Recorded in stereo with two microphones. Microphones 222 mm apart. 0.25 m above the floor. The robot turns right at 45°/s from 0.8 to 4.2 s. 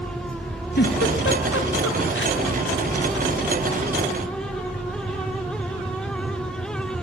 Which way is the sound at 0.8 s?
45° left (ahead or behind).